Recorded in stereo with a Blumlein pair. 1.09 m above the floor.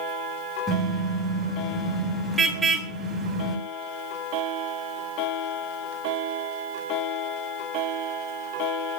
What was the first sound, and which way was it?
A car horn, 10° right.